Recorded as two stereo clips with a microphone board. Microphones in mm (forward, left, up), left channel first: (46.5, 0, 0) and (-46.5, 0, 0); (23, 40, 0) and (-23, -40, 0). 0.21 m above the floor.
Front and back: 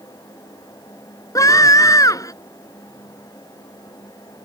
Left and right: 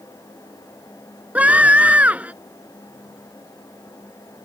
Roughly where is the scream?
Ahead right.